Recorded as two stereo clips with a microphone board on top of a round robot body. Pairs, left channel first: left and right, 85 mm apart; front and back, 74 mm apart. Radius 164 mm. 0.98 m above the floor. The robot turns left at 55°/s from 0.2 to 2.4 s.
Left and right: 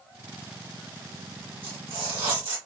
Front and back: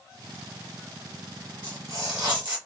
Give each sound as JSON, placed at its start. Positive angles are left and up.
{"t": 1.6, "sound": "tearing paper", "azimuth_deg": -75, "distance_m": 1.3}